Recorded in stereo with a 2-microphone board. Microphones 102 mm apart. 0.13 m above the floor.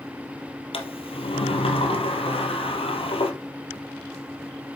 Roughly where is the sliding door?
Left.